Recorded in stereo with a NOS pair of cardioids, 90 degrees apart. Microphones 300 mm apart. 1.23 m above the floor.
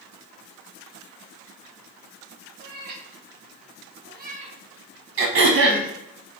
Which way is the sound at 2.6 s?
70° right.